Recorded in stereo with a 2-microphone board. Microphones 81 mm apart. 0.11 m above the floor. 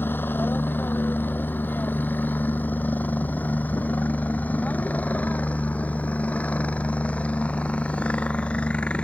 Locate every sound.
0.0 s a helicopter: 25° left (ahead or behind); by 9.1 s 15° left (ahead or behind)